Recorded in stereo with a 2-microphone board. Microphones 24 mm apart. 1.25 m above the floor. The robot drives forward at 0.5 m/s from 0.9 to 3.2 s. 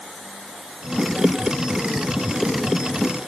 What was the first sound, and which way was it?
Only background noise.